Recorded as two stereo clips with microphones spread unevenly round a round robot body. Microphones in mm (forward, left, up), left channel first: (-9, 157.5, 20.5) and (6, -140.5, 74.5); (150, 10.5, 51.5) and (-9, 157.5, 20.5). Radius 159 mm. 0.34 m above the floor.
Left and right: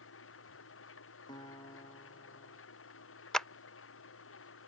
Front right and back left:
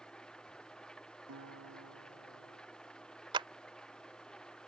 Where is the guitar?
170° left.